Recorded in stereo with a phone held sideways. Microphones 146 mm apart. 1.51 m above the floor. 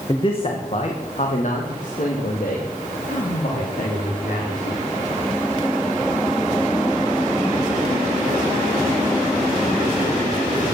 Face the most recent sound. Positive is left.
turn(degrees=75)  # may be behind; listen again after turning